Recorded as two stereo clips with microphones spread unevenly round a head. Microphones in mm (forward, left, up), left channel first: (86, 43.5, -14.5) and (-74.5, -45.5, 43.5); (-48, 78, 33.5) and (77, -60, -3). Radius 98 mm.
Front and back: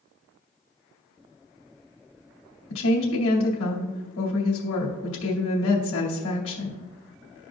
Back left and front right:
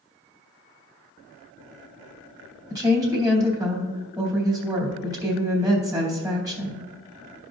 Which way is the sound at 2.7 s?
25° left.